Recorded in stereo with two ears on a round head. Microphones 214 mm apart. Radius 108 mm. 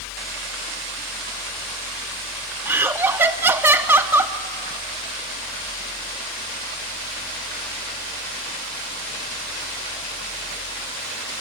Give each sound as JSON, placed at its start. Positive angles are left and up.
{"t": 2.6, "sound": "laughter", "side_deg": -10, "distance_m": 0.7}